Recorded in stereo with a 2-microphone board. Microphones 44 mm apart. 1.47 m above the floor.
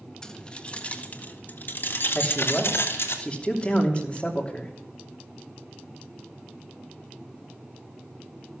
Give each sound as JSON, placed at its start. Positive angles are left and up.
{"t": 0.2, "sound": "keys jangling", "side_deg": 15, "distance_m": 1.5}
{"t": 2.1, "sound": "a man speaking", "side_deg": 25, "distance_m": 3.0}